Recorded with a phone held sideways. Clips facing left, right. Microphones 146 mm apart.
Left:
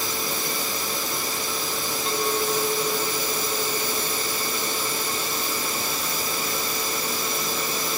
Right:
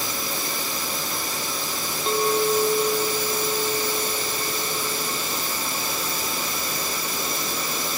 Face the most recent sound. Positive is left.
turn(degrees=-30)  # may be behind; listen again after turning